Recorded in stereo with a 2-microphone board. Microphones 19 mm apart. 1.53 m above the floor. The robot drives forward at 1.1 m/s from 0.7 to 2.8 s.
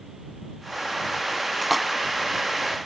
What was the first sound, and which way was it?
A splash, 5° right (ahead or behind).